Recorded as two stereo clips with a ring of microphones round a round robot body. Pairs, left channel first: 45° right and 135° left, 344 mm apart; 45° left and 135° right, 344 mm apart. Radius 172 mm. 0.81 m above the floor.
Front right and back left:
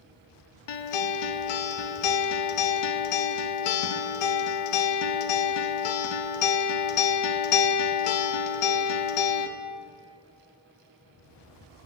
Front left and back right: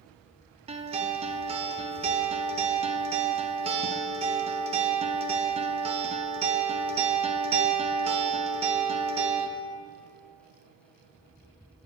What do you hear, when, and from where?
0.7 s a guitar: 60° right, 0.6 m